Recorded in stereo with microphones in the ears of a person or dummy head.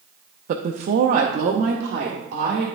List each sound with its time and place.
0.5 s a woman speaking: 45° right (ahead or behind), 0.5 m